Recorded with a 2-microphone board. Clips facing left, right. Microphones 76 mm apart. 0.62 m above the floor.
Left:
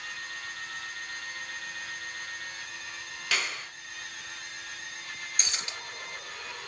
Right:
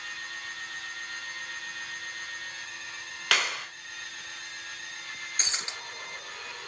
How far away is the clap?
About 1.7 m.